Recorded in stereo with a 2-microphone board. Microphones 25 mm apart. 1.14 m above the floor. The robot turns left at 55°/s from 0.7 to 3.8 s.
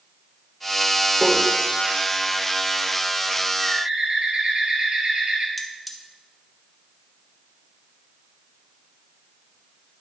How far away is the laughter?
No laughter in this recording.